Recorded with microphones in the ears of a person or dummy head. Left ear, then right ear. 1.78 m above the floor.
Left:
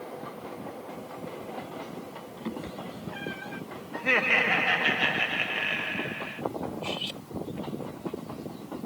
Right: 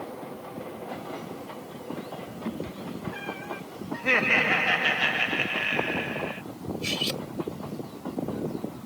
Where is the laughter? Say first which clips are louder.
Right 1 dB; centre (ahead or behind).